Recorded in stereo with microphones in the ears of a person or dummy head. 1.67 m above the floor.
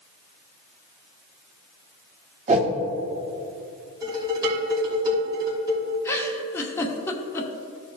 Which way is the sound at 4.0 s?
30° right (ahead or behind).